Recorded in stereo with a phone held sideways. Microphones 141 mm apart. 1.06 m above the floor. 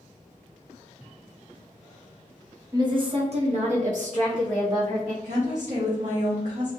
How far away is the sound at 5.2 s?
About 0.9 m.